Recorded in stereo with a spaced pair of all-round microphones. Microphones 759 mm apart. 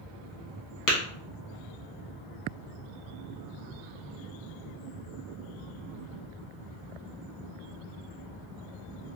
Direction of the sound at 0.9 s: 25° left (ahead or behind).